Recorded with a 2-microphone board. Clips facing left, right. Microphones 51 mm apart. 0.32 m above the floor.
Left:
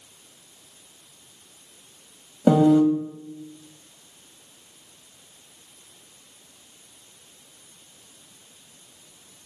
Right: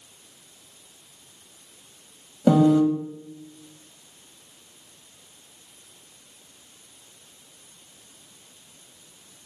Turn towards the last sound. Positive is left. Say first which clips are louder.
# left 1 dB
turn(degrees=15)  # may be behind; listen again after turning